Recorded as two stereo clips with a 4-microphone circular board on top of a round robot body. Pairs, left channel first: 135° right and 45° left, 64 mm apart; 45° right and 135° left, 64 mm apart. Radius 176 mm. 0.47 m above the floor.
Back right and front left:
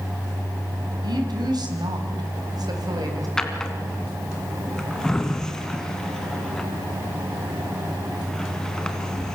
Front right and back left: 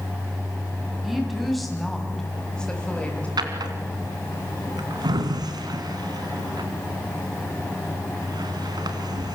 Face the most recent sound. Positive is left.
turn(degrees=145)